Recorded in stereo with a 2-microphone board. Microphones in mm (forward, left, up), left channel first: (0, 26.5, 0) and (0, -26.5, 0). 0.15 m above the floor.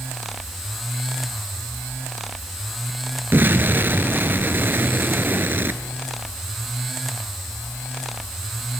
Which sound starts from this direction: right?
An explosion, at 3.3 s.